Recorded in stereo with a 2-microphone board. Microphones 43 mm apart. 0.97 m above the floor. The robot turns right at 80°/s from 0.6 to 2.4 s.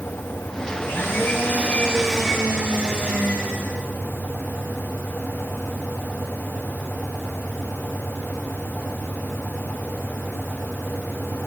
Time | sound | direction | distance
0.8 | a blender | 75° left | 2.0 m